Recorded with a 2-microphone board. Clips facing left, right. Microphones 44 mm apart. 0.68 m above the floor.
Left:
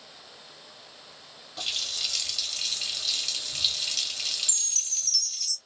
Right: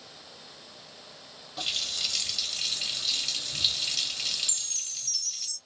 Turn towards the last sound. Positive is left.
turn(degrees=-15)  # may be behind; listen again after turning